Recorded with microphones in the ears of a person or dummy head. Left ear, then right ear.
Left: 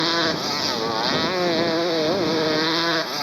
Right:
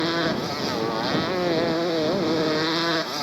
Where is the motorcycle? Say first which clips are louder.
Left 3 dB; 35° left (ahead or behind); by 3.2 s 15° left (ahead or behind).